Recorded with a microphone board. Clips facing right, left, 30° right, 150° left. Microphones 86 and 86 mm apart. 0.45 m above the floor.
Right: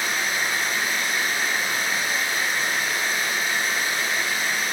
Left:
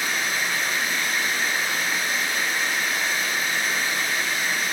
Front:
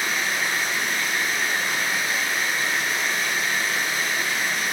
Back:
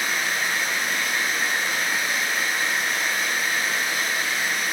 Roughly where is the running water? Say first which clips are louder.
Right 1 dB, even; behind right.